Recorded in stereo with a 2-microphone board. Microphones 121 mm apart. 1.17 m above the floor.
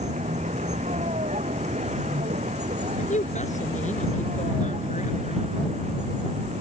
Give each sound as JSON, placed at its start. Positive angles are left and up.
{"t": 0.0, "sound": "a vehicle", "side_deg": -75}
{"t": 3.0, "sound": "a woman speaking", "side_deg": 85}